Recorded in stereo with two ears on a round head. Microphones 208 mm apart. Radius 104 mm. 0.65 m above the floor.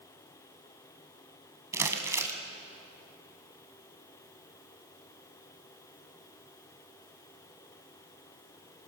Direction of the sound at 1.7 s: 15° right (ahead or behind).